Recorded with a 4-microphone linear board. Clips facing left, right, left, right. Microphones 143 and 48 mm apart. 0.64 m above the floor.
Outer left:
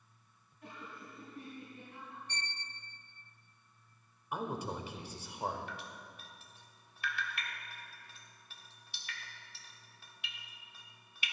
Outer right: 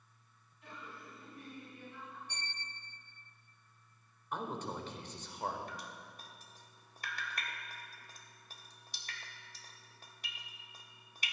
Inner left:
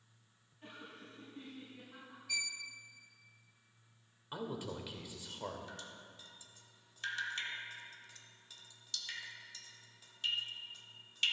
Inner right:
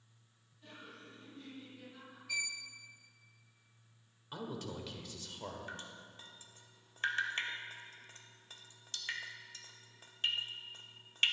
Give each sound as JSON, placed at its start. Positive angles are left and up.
{"t": 0.6, "sound": "laughter", "side_deg": 50, "distance_m": 5.0}
{"t": 2.3, "sound": "a violin", "side_deg": -5, "distance_m": 0.9}
{"t": 4.3, "sound": "a man speaking", "side_deg": 10, "distance_m": 1.7}
{"t": 5.7, "sound": "dripping", "side_deg": -40, "distance_m": 1.1}